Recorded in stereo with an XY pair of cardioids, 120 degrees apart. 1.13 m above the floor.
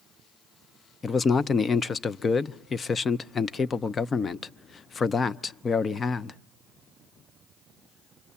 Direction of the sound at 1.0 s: 35° left.